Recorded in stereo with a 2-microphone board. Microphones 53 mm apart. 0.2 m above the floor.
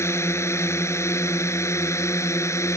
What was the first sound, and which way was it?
A drone, 55° left (ahead or behind).